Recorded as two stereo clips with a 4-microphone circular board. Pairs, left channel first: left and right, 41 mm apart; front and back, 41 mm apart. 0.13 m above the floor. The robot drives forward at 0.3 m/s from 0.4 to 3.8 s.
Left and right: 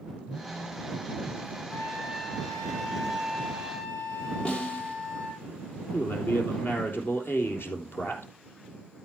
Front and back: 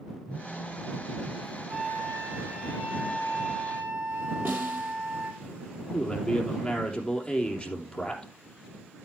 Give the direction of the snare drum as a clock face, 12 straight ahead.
7 o'clock.